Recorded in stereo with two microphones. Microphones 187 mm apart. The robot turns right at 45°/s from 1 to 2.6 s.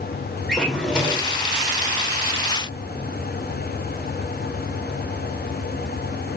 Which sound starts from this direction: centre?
A drawer, at 0.5 s.